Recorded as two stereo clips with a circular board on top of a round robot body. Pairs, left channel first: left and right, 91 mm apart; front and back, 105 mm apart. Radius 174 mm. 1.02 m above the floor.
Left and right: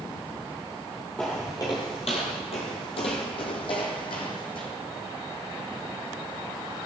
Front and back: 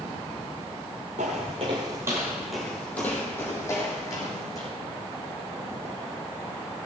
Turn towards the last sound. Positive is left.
turn(degrees=60)